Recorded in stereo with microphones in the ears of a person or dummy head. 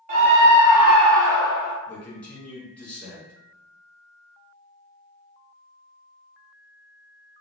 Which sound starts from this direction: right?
A scream, at 0.1 s.